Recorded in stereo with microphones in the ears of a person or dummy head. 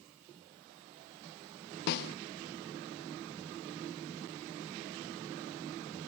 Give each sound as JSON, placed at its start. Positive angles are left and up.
{"t": 1.9, "sound": "a snare drum", "side_deg": 60}